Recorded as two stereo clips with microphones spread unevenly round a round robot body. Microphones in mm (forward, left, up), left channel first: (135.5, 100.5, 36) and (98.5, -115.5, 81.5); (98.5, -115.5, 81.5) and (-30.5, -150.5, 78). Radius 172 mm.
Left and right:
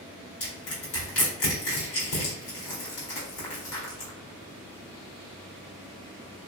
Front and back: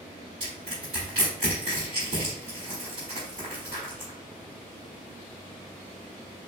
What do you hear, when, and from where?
0.4 s crushing: 150° left, 1.1 m